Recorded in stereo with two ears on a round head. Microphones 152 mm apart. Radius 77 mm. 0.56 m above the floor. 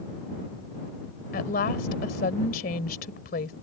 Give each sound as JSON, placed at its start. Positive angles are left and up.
{"t": 1.3, "sound": "a woman speaking", "side_deg": 50}